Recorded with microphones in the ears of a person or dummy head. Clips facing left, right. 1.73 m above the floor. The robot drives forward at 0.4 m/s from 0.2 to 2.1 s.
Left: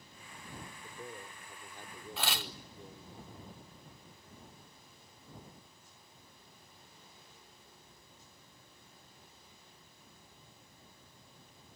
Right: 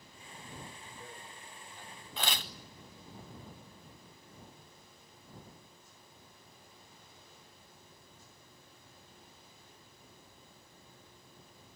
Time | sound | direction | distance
0.8 | a man speaking | 45° left (ahead or behind) | 4.5 m
2.2 | tearing paper | 5° left (ahead or behind) | 0.7 m